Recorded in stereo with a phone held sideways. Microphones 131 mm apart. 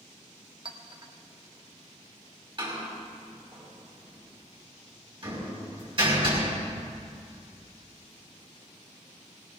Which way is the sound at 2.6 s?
40° right (ahead or behind).